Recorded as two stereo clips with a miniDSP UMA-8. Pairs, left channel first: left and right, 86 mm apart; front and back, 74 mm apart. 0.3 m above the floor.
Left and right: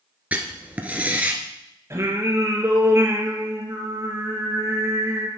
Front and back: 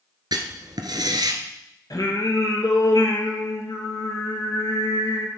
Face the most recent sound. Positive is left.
turn(degrees=-30)